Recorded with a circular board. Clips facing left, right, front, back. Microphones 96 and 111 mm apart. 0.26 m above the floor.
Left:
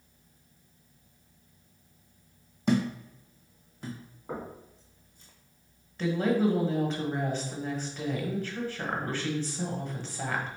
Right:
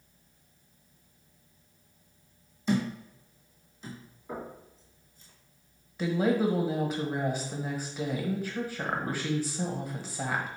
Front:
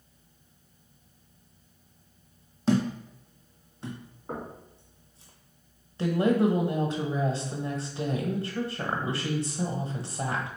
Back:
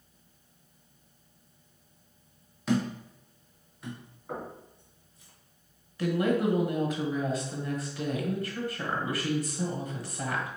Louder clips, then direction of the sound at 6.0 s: Even, front 3 dB; 20° right.